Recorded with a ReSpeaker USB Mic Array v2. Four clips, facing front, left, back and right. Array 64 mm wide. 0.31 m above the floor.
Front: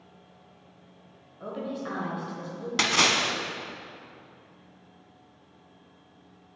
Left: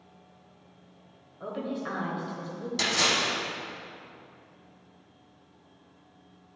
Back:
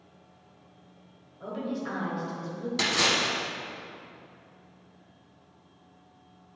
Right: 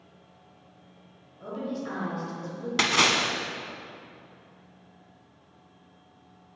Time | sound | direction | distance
1.4 | a woman speaking | 65° left | 1.2 m
2.8 | a splash | 60° right | 0.7 m